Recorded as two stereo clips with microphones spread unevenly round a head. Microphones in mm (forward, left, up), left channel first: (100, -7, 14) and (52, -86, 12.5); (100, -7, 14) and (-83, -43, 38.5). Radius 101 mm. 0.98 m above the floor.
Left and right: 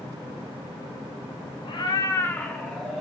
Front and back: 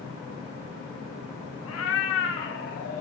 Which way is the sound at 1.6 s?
35° left.